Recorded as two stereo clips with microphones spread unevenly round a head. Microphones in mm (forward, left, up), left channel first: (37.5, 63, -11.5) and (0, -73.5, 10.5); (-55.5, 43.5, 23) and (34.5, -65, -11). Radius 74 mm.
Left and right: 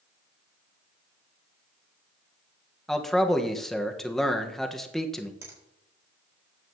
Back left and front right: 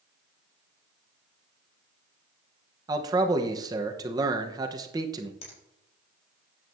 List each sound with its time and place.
2.9 s a man speaking: 5° right, 1.1 m
5.4 s a finger snap: straight behind, 4 m